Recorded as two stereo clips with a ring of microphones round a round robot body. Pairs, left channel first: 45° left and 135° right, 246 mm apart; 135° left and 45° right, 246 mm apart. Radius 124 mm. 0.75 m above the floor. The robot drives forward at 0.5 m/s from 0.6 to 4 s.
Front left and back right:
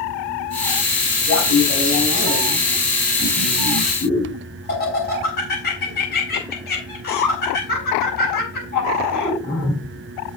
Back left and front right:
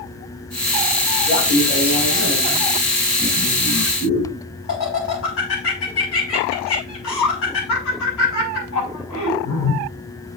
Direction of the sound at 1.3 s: 85° left.